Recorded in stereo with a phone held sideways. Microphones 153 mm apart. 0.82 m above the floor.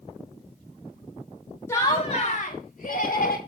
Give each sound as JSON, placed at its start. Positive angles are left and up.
{"t": 1.7, "sound": "laughter", "side_deg": 20, "distance_m": 1.5}